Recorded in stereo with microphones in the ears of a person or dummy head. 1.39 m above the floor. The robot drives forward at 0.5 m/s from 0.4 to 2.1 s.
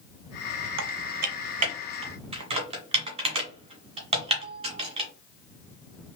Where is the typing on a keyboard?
65° right (ahead or behind), 0.6 m; by 5.1 s 30° right (ahead or behind), 1.1 m.